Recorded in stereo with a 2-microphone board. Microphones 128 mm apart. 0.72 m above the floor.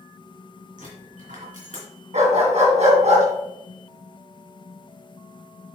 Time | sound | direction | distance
0.8 | a dropped coin | 85° right | 3.5 m
2.1 | a dog barking | 65° right (ahead or behind) | 2.5 m